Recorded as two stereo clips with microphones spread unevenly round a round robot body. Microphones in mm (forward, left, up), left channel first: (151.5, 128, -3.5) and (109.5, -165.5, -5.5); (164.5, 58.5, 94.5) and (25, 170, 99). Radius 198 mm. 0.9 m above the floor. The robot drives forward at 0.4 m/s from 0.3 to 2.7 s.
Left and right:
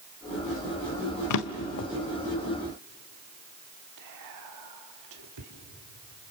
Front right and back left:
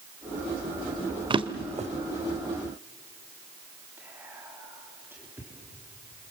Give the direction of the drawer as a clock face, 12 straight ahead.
9 o'clock.